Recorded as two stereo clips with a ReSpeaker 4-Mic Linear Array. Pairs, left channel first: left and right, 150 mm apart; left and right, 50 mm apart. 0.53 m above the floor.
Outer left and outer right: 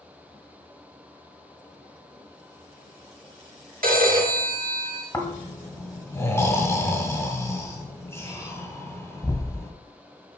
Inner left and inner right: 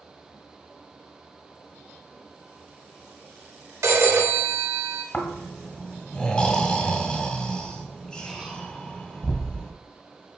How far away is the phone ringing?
About 1.2 m.